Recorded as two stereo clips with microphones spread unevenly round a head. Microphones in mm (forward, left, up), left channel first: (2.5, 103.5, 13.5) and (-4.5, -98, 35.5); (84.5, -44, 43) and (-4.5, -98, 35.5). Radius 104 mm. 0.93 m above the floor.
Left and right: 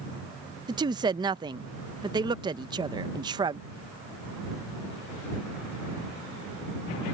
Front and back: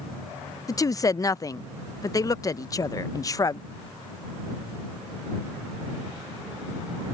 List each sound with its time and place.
0.7 s a woman speaking: 20° right